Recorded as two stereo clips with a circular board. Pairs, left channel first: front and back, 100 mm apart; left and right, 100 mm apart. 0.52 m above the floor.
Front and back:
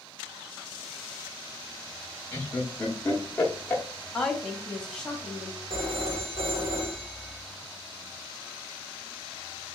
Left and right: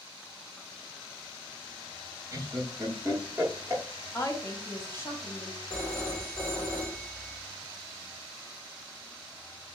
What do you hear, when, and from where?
2.3 s laughter: 60° right, 0.7 m
4.1 s a woman speaking: 80° left, 0.8 m
5.7 s a phone ringing: 165° left, 1.4 m